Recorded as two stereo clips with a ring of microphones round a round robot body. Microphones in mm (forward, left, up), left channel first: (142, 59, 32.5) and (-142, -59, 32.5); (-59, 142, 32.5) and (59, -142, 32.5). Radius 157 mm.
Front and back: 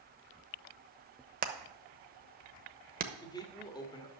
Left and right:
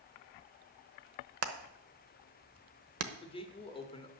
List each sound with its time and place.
1.4 s hammering: 100° right, 1.0 m
3.2 s a man speaking: 75° left, 1.3 m